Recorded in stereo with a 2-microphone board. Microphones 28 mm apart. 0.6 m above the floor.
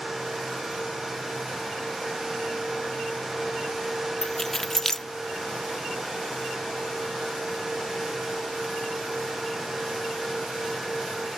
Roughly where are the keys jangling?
Centre.